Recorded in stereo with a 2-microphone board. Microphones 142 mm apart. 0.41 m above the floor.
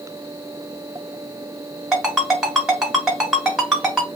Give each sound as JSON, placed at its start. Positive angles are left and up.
{"t": 1.9, "sound": "a ringtone", "side_deg": -5, "distance_m": 1.6}